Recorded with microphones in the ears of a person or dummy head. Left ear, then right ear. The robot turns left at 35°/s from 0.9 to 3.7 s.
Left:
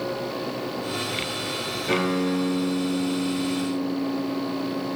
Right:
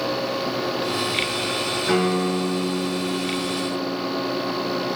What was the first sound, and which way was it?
A guitar, 105° right.